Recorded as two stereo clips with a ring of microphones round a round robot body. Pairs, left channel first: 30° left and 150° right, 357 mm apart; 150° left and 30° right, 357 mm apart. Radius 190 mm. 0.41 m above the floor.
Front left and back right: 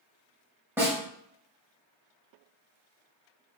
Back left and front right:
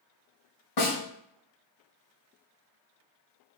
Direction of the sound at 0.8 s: 125° left.